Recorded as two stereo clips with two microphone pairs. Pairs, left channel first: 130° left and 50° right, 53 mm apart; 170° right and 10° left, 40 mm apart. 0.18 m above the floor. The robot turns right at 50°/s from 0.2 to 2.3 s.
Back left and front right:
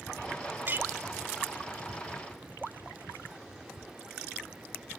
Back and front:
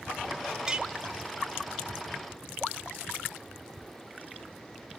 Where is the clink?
55° right, 1.2 m; by 0.9 s 40° right, 1.2 m.